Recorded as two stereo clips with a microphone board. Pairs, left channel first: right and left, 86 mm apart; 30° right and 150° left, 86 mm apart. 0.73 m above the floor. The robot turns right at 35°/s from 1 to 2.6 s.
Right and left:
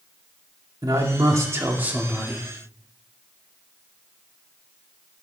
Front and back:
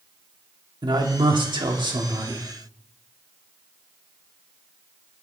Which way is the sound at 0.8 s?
130° left.